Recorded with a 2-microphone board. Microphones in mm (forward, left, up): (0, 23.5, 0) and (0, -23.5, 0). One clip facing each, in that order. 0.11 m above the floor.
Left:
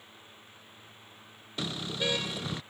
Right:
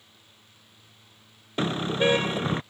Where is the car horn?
35° right (ahead or behind).